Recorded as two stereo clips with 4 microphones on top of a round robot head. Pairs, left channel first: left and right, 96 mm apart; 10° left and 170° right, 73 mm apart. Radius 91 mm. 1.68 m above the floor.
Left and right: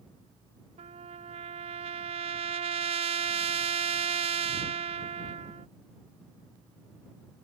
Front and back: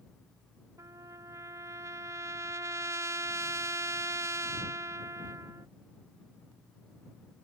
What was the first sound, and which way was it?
A trumpet, 115° right.